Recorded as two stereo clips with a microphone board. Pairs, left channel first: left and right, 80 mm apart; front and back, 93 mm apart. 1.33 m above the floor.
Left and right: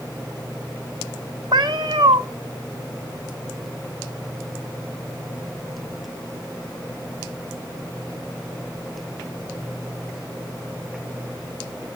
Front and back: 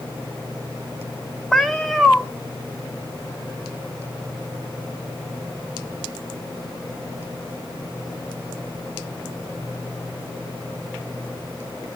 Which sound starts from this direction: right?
A cat meowing, at 1.5 s.